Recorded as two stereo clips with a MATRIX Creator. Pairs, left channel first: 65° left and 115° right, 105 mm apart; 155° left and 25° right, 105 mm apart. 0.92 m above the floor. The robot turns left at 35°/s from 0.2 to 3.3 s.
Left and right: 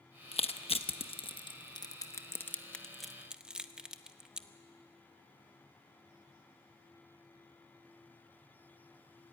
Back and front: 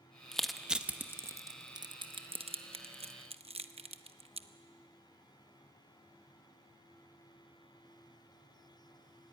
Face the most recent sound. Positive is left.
turn(degrees=-30)